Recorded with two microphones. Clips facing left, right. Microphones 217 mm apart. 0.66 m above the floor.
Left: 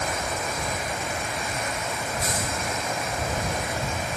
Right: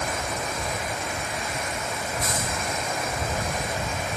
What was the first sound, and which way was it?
Only background noise.